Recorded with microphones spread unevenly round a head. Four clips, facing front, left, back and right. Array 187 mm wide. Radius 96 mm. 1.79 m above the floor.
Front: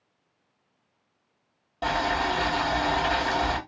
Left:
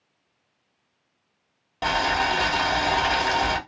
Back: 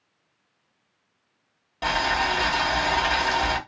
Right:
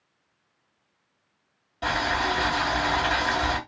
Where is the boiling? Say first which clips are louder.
Left 3 dB, back 1 dB; 75° left, 1.4 m.